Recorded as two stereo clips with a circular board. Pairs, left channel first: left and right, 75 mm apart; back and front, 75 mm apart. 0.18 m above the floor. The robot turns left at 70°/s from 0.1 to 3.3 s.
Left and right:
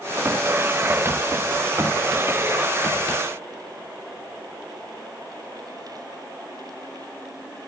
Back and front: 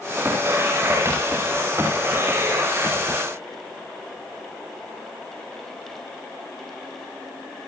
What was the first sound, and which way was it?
Only background noise.